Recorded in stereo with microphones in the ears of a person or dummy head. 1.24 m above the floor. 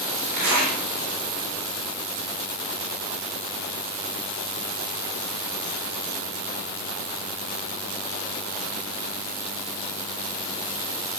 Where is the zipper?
40° right (ahead or behind), 8.5 m.